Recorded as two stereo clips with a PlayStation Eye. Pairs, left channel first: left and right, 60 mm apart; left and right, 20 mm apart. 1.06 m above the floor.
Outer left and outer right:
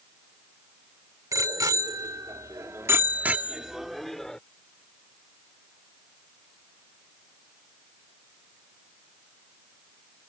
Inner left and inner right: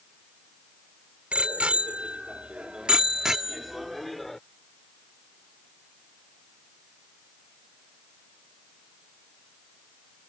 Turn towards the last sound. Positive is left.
turn(degrees=10)  # may be behind; listen again after turning